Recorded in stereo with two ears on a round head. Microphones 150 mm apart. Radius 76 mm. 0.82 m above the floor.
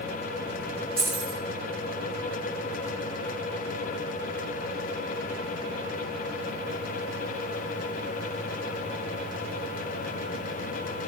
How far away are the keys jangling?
About 3 m.